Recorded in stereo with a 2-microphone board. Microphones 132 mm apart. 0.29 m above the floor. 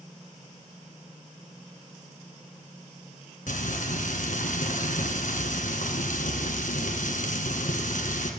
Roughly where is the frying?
Left.